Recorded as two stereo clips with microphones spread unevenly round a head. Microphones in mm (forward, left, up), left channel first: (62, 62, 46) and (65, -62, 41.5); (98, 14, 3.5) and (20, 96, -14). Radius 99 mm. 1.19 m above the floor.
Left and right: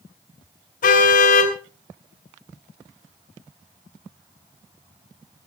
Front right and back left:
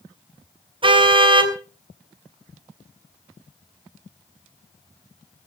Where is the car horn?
90° left, 3 m.